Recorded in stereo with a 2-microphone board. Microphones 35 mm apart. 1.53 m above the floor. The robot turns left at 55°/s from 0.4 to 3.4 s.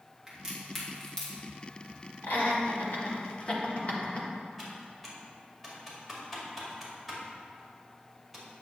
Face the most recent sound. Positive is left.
turn(degrees=0)  # may be behind; listen again after turning